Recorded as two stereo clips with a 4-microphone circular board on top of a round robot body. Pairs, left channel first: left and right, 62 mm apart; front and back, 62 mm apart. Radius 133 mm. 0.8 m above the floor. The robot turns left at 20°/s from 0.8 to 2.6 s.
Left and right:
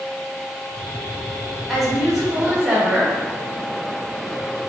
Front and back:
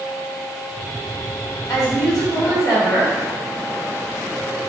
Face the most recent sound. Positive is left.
turn(degrees=-15)